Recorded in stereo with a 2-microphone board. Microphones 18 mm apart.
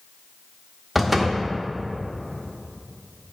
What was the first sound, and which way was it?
A door slam, 10° right (ahead or behind).